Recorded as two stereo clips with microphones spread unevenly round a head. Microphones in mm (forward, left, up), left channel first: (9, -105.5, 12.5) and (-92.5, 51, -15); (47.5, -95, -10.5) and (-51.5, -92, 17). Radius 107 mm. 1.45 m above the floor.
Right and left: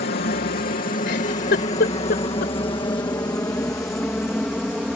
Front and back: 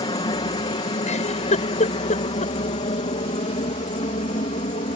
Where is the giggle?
5° right.